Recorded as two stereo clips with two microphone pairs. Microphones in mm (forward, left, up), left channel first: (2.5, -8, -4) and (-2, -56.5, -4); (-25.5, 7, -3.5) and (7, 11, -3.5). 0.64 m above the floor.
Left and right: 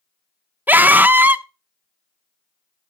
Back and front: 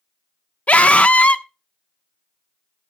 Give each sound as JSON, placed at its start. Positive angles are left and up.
{"t": 0.7, "sound": "a scream", "azimuth_deg": -135, "distance_m": 0.9}